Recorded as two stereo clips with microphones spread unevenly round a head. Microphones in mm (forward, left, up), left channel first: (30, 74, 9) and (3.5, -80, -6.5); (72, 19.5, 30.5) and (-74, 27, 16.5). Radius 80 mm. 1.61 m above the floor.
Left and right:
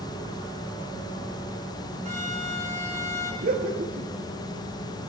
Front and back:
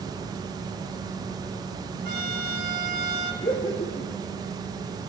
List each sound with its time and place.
2.0 s a violin: 150° right, 4 m
3.4 s laughter: 65° right, 2.5 m